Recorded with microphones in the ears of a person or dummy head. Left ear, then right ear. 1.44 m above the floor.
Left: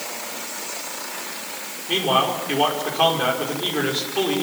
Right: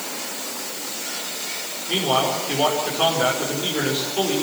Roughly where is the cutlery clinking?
I don't hear cutlery clinking.